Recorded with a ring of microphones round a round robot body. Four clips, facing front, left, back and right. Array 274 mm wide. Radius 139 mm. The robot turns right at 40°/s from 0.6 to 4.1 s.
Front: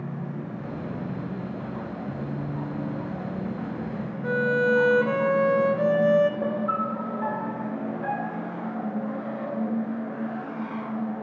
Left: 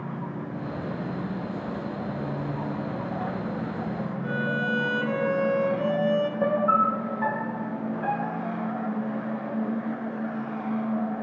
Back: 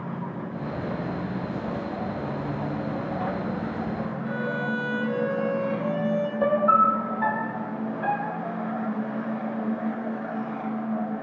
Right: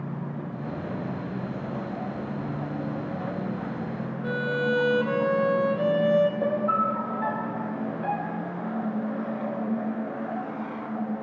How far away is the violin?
About 0.6 m.